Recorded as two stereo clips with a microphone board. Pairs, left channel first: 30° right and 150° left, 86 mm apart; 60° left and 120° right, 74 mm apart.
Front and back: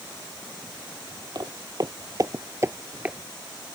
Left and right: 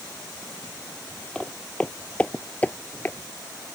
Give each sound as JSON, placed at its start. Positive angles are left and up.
{"t": 1.4, "sound": "footsteps", "azimuth_deg": 135}